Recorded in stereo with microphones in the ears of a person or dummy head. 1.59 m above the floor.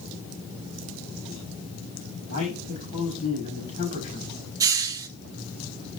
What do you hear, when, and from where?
2.3 s a man speaking: 45° left (ahead or behind), 5.5 m
4.6 s a hiss: 25° right (ahead or behind), 1.5 m